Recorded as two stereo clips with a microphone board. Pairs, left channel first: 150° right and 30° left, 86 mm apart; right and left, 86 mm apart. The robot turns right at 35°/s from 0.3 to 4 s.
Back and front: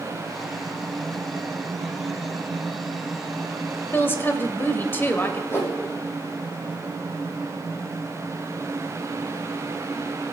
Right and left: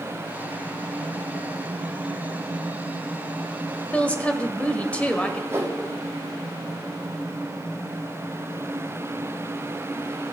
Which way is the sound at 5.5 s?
150° left.